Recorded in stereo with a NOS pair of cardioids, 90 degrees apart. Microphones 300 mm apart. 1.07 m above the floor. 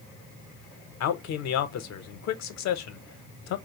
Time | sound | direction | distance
1.0 | a man speaking | 65° left | 0.7 m